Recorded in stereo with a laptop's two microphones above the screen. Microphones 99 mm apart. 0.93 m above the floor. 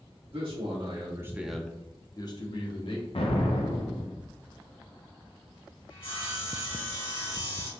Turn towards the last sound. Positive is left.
turn(degrees=65)  # may be behind; listen again after turning